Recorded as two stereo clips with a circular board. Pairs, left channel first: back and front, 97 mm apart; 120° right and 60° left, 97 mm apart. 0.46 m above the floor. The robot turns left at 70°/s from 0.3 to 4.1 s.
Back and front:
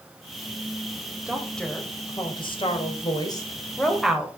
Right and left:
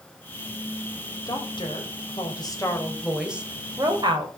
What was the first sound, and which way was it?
A woman speaking, 75° right.